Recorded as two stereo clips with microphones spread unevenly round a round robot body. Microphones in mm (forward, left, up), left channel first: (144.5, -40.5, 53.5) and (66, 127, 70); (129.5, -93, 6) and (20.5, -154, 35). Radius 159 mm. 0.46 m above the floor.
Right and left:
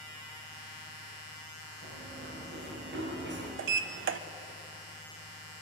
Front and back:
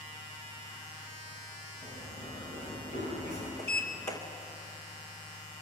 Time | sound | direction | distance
1.8 | running footsteps | 100° left | 6.5 m
3.6 | a sliding door | 110° left | 0.7 m